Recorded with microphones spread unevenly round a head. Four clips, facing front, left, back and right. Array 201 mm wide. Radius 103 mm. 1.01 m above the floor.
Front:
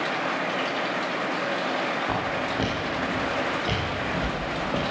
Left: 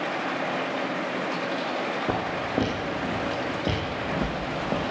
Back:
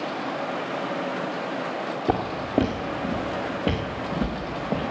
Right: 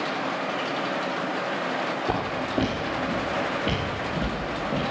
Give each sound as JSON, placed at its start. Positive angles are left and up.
{"t": 2.1, "sound": "footsteps", "azimuth_deg": 170, "distance_m": 3.5}